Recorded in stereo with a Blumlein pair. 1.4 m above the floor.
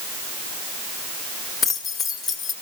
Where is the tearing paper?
I don't hear tearing paper.